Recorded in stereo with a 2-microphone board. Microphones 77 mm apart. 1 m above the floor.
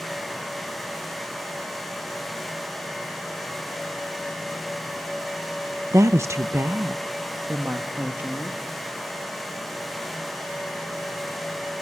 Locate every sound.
5.9 s a woman speaking: 40° right (ahead or behind), 0.5 m; by 8.6 s 25° right (ahead or behind), 1.9 m